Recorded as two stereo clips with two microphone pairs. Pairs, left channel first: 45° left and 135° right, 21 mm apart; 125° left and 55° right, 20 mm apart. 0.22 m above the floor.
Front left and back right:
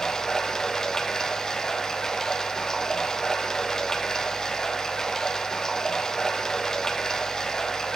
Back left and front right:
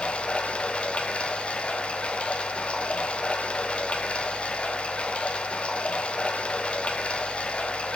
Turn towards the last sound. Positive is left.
turn(degrees=110)